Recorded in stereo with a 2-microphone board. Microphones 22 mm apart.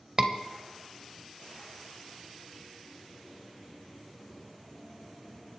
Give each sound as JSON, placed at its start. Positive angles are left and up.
{"t": 0.2, "sound": "a scream", "side_deg": -30, "distance_m": 1.3}